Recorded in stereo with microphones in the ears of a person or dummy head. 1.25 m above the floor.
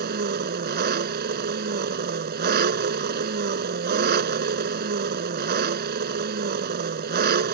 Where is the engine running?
45° right (ahead or behind).